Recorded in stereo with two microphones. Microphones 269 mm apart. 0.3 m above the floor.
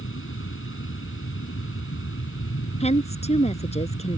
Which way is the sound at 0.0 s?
45° left (ahead or behind).